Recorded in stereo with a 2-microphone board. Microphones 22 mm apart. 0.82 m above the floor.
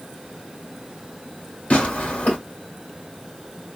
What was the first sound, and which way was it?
Tearing paper, 70° left (ahead or behind).